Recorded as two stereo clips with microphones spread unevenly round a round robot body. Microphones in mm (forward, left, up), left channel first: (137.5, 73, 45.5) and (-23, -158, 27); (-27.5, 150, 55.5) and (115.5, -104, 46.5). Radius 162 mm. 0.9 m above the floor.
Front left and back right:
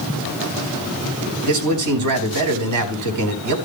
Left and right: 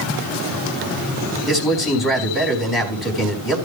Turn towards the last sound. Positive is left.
turn(degrees=-150)